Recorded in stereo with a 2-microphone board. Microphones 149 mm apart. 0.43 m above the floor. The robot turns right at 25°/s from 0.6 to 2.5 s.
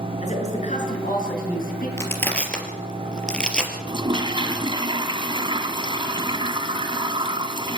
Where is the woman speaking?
55° left, 6.5 m; by 1.9 s 85° left, 6.5 m.